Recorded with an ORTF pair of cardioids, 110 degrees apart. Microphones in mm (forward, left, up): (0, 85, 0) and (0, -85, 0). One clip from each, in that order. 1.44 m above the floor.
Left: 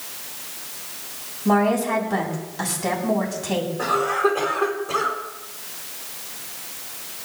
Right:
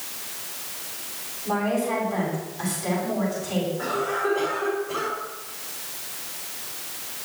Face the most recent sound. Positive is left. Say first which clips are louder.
# left 8 dB
turn(degrees=55)